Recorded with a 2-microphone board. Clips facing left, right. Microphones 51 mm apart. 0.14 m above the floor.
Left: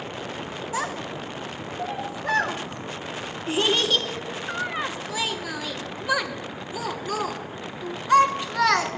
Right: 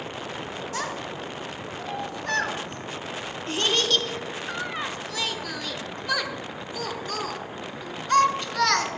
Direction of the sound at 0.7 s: 15° left (ahead or behind).